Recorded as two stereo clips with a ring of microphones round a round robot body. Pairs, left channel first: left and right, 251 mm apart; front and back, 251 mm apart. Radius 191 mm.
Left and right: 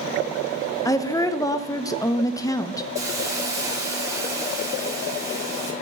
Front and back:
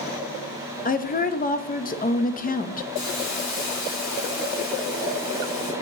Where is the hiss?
10° right, 2.5 m.